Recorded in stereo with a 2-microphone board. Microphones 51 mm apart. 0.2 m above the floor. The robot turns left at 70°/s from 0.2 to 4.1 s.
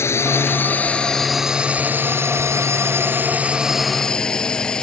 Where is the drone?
65° left (ahead or behind); by 4.8 s 15° left (ahead or behind).